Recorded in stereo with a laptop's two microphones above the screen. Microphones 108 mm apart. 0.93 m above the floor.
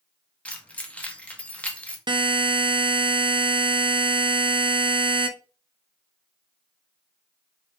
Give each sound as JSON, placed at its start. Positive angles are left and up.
{"t": 0.5, "sound": "keys jangling", "side_deg": 15, "distance_m": 0.7}
{"t": 2.1, "sound": "a buzzer", "side_deg": -45, "distance_m": 0.7}